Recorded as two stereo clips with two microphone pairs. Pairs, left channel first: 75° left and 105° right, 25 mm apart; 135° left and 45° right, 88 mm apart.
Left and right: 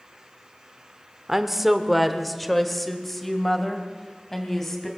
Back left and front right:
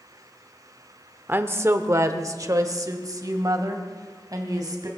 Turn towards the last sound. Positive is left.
turn(degrees=-5)